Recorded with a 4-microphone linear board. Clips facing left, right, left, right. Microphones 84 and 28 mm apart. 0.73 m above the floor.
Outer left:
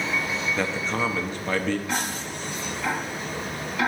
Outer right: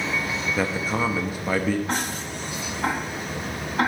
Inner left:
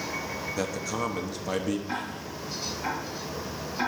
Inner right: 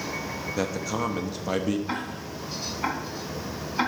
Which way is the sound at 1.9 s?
45° right (ahead or behind).